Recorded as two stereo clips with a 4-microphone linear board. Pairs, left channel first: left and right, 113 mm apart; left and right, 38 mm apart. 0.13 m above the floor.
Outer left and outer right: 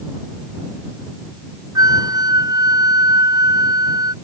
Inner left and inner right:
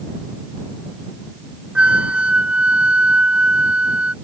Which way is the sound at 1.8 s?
30° right (ahead or behind).